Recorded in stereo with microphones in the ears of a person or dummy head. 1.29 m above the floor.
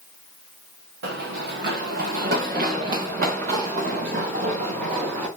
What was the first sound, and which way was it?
Running footsteps, 60° right (ahead or behind).